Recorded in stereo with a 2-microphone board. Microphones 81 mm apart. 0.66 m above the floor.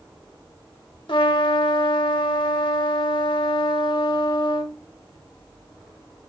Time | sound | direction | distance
1.1 | a trumpet | 70° left (ahead or behind) | 0.7 m